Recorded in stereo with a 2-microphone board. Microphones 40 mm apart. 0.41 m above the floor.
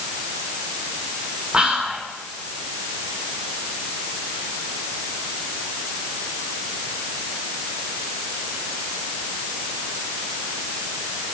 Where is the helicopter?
No helicopter in this recording.